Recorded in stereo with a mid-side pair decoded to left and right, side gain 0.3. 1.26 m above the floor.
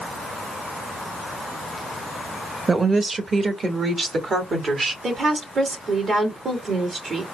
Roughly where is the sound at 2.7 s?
Ahead right.